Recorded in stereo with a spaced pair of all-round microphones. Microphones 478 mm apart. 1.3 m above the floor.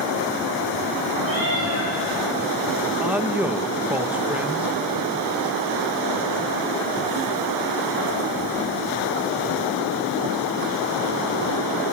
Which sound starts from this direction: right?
A cat meowing, at 1.2 s.